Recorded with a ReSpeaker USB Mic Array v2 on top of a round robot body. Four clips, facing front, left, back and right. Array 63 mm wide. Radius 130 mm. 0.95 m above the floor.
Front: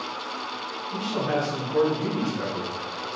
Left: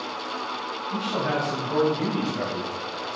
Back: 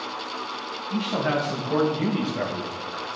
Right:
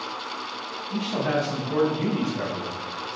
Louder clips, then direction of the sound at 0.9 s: Right 1 dB, back 2 dB; 175° left.